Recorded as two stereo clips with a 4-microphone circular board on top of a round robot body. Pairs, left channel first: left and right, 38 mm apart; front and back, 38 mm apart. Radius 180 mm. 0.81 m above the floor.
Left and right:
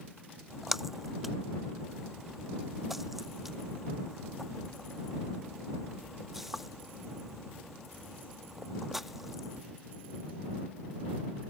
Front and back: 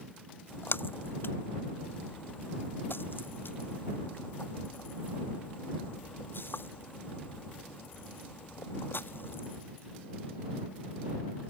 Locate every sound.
0.5 s a splash: 5° right